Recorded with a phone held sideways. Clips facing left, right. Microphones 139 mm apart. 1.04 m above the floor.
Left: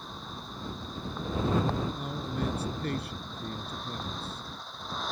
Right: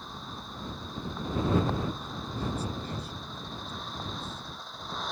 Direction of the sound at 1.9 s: 65° left (ahead or behind).